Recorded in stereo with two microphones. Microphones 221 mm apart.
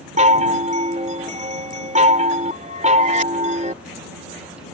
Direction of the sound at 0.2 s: 35° right (ahead or behind).